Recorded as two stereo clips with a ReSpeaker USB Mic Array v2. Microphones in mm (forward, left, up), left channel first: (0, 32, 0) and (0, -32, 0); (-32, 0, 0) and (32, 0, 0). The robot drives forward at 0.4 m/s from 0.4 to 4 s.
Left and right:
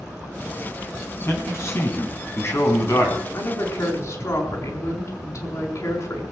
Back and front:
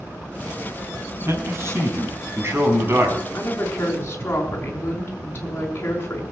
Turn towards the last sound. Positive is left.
turn(degrees=125)